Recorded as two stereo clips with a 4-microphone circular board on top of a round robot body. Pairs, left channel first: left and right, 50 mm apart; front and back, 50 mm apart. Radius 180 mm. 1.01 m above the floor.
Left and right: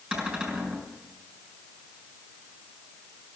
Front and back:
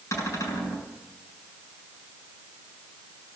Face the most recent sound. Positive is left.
turn(degrees=-15)